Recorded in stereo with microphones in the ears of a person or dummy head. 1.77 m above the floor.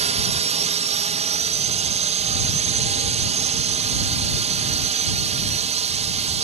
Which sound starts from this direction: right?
A drone, at 0.0 s.